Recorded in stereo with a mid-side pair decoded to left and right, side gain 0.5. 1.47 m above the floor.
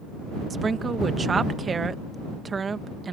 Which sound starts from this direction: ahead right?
A woman speaking, at 0.5 s.